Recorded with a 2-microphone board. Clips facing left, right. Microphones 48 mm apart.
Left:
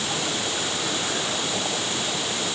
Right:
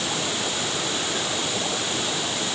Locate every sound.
Only background noise.